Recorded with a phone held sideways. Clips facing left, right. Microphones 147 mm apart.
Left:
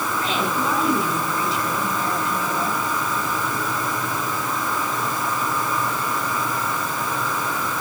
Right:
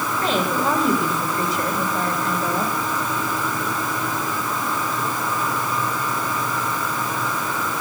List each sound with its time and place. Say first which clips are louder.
0.2 s a woman speaking: right 4 dB; 40° right (ahead or behind), 8.5 m